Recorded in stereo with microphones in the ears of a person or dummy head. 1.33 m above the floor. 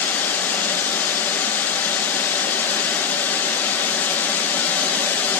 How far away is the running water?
About 1.3 m.